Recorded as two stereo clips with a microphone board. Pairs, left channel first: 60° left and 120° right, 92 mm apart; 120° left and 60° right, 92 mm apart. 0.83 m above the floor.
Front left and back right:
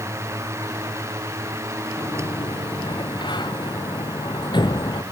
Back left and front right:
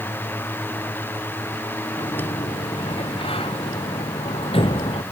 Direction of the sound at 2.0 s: 100° left.